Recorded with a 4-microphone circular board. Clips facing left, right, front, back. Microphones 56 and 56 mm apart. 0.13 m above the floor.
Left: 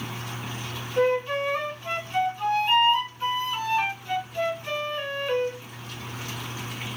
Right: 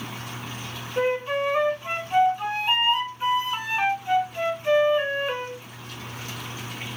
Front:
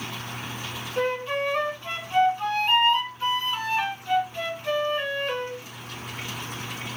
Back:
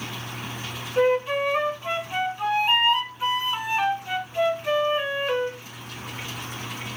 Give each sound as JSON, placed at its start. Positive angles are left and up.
{"t": 1.0, "sound": "a flute", "azimuth_deg": -130, "distance_m": 1.0}